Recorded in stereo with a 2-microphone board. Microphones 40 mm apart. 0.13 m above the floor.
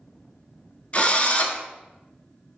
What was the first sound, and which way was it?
A drill, 30° left (ahead or behind).